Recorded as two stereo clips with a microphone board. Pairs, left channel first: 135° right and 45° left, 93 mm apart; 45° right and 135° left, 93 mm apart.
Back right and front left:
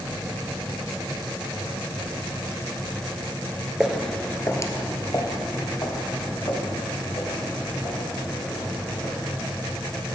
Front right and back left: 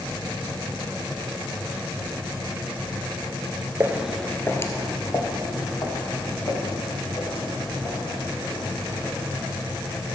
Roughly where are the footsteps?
Behind left.